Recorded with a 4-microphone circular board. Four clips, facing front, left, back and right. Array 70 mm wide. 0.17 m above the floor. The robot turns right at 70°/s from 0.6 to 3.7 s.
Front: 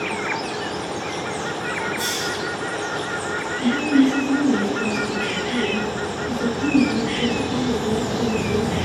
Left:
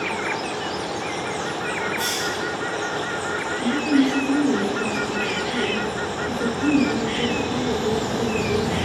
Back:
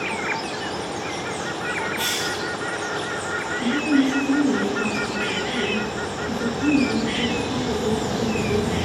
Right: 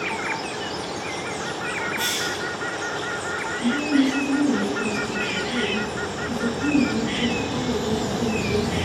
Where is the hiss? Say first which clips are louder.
Left 1 dB, front 1 dB; straight behind, 2.5 m; by 2.4 s 150° right, 2.5 m.